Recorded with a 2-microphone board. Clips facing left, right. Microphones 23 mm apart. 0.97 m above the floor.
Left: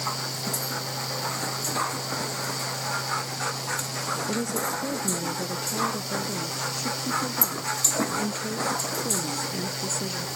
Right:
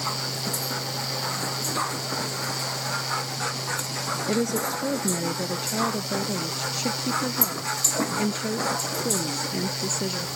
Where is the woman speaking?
40° right (ahead or behind); by 10.3 s 30° right (ahead or behind).